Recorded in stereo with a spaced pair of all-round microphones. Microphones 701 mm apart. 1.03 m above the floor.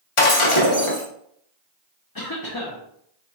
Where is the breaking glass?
50° left (ahead or behind), 0.8 m.